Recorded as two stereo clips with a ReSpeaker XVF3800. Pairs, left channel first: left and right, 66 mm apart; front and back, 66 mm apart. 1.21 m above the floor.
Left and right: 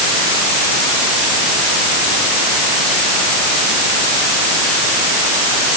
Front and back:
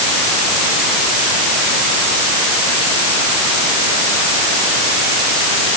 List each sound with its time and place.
Only background noise.